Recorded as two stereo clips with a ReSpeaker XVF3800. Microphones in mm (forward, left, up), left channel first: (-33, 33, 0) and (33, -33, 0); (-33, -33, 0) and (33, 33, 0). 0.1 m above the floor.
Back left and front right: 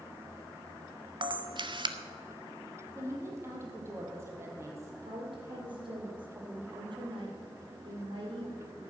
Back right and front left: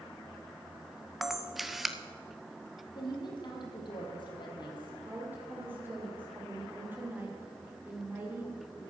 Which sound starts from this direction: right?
A woman speaking, at 3.0 s.